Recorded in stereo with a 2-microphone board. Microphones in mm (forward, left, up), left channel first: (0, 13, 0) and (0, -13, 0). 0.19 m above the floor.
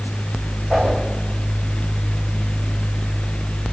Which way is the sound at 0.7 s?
50° right (ahead or behind).